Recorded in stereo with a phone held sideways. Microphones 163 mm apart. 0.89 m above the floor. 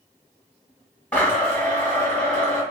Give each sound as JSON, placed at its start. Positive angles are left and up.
{"t": 1.1, "sound": "a blender", "side_deg": 10, "distance_m": 1.9}